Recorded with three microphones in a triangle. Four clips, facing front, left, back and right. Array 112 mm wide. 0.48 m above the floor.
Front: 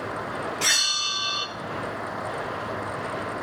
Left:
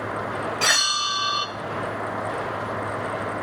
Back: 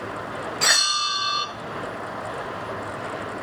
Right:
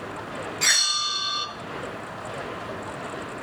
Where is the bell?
130° left, 1.5 m.